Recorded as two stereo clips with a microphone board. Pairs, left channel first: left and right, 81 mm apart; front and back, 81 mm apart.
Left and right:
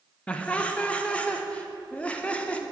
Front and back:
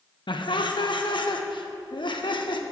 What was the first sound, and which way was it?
Laughter, 15° left.